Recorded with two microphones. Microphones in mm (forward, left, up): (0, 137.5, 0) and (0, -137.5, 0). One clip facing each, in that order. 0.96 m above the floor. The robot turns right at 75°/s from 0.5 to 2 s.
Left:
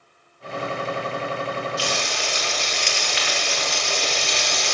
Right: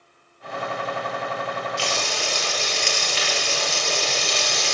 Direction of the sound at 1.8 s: 25° right (ahead or behind).